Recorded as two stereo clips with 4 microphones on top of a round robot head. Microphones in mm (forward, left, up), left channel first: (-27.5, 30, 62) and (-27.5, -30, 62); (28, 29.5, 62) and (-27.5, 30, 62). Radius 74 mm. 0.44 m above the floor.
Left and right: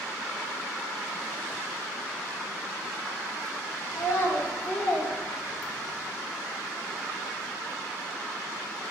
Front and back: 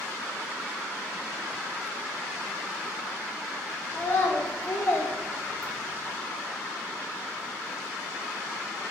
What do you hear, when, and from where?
3.9 s a child speaking: 55° left, 1.1 m; by 6.0 s 75° right, 1.0 m